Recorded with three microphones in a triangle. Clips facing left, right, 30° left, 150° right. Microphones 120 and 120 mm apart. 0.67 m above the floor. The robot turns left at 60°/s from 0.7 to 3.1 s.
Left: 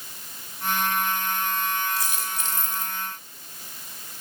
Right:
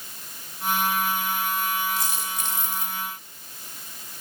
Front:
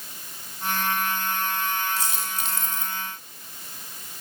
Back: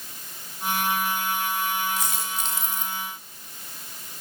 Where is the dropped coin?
25° right, 2 m; by 3.0 s 90° right, 2 m.